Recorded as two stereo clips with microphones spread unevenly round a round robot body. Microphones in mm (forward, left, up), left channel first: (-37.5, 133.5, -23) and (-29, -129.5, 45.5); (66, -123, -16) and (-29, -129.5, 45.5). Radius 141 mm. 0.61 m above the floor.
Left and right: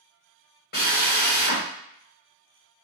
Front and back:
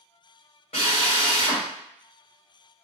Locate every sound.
0.7 s a drill: 35° left, 1.2 m